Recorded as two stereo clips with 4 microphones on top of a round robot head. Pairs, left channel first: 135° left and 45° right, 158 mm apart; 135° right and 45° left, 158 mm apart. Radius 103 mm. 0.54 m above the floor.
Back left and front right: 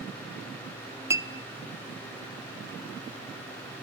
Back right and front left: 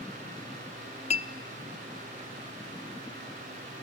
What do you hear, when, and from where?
1.1 s a clink: 115° right, 0.8 m